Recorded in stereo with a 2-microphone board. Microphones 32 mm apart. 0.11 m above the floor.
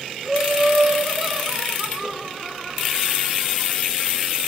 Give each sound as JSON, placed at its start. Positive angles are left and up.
{"t": 0.2, "sound": "laughter", "side_deg": -10, "distance_m": 2.0}